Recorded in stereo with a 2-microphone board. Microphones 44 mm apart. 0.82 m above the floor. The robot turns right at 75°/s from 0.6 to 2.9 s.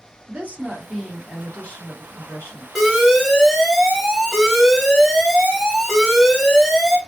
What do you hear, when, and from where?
0.3 s a woman speaking: 40° right, 1.6 m; by 2.6 s 115° left, 1.6 m
2.8 s an alarm: centre (ahead or behind), 1.0 m; by 7.0 s 10° right (ahead or behind), 1.0 m